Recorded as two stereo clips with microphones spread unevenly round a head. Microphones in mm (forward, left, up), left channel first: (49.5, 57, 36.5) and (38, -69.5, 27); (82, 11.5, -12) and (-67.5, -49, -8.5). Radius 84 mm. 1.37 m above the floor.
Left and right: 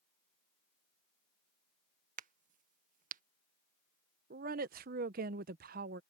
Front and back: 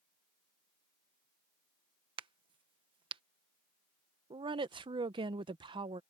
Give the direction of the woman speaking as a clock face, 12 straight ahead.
3 o'clock.